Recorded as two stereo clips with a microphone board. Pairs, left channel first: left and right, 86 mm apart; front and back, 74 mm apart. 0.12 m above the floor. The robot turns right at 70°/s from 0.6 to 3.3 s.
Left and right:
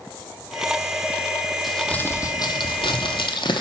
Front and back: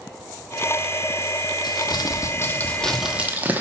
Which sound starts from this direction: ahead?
Crumpling, at 1.6 s.